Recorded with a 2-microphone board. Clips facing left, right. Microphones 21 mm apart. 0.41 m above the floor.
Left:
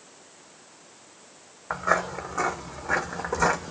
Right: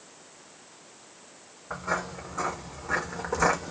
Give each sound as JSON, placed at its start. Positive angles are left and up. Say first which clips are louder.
{"t": 1.7, "sound": "footsteps", "louder": "left 6 dB", "side_deg": 50, "distance_m": 1.2}